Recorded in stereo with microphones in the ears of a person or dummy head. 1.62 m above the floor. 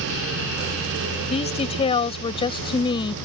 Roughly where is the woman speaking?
Left.